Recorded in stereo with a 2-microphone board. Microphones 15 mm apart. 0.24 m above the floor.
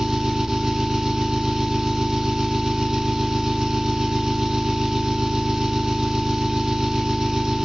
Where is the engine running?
45° right (ahead or behind), 1.1 m.